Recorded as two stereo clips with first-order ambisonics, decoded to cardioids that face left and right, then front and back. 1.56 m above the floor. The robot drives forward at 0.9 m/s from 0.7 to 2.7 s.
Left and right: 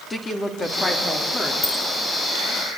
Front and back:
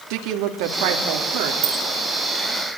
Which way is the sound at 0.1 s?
165° left.